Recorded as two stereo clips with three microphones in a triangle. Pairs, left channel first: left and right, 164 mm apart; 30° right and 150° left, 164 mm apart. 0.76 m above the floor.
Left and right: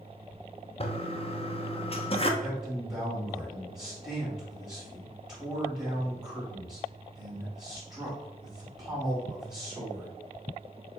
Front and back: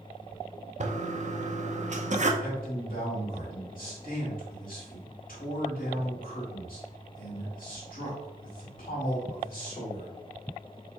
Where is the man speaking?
10° right, 2 m.